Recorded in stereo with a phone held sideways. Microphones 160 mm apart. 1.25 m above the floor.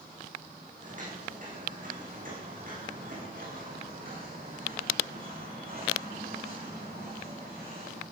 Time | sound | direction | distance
0.8 | footsteps | 55° right (ahead or behind) | 6 m